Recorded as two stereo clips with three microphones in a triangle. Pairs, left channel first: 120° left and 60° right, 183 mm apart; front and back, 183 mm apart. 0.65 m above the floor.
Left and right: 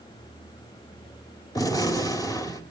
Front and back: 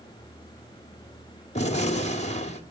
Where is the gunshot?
50° left, 2.5 m.